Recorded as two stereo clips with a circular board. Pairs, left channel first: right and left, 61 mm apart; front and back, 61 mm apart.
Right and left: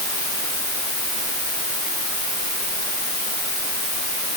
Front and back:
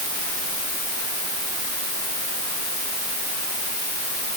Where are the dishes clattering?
I don't hear dishes clattering.